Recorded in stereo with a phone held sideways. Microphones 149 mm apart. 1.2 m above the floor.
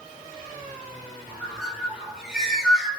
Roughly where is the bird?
Centre.